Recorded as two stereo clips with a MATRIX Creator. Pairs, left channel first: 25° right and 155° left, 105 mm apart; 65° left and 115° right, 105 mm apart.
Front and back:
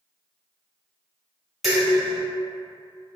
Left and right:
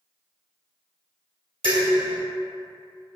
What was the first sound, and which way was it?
Dishes clattering, 115° right.